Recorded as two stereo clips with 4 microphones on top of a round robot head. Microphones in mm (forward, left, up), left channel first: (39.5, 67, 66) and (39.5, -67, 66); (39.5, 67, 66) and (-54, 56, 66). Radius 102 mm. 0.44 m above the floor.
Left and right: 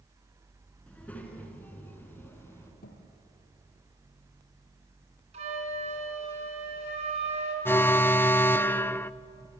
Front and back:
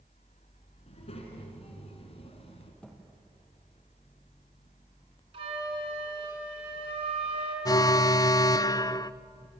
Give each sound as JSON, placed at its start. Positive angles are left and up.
{"t": 0.9, "sound": "a child speaking", "azimuth_deg": 10, "distance_m": 5.0}
{"t": 2.8, "sound": "a thud", "azimuth_deg": 85, "distance_m": 4.0}
{"t": 5.3, "sound": "a flute", "azimuth_deg": -135, "distance_m": 5.0}
{"t": 7.7, "sound": "an alarm", "azimuth_deg": 25, "distance_m": 0.7}